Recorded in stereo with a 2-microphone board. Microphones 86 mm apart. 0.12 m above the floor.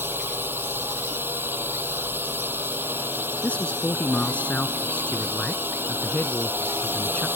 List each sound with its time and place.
0.0 s a drone: 25° right (ahead or behind)
3.4 s a man speaking: 15° left (ahead or behind)